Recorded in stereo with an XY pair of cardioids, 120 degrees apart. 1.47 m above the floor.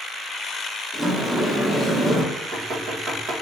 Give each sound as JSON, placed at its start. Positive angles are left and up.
{"t": 0.9, "sound": "a sliding door", "azimuth_deg": -25, "distance_m": 1.6}
{"t": 2.3, "sound": "knocking", "azimuth_deg": -50, "distance_m": 1.4}